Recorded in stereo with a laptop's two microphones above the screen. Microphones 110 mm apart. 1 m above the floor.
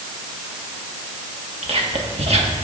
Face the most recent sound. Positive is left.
turn(degrees=-70)  # may be behind; listen again after turning